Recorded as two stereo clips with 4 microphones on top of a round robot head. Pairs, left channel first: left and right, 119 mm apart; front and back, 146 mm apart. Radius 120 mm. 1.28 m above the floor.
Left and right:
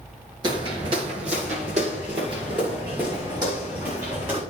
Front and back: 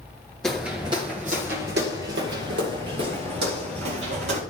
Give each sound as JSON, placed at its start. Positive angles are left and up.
{"t": 0.4, "sound": "footsteps", "azimuth_deg": -80, "distance_m": 1.3}